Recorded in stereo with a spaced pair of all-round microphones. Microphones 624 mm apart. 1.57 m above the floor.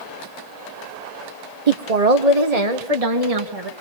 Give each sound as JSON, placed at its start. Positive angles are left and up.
{"t": 1.7, "sound": "a woman speaking", "side_deg": -80, "distance_m": 1.2}